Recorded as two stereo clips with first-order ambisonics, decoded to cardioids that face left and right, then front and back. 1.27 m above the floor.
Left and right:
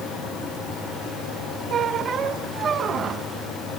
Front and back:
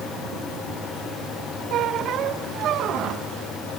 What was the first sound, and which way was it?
A squeak, 145° right.